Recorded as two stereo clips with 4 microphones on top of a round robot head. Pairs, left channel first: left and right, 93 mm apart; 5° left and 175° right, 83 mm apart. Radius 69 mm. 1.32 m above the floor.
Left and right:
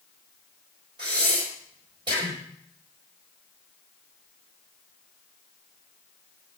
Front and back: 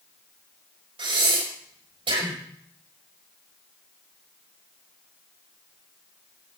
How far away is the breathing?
About 5 m.